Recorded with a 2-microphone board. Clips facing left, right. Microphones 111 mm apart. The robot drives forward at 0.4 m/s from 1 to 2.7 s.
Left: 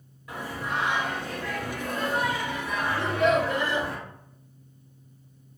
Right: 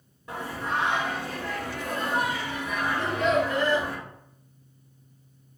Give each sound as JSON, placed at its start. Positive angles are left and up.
{"t": 0.3, "sound": "singing", "side_deg": -30, "distance_m": 0.9}
{"t": 3.0, "sound": "a child speaking", "side_deg": 15, "distance_m": 1.0}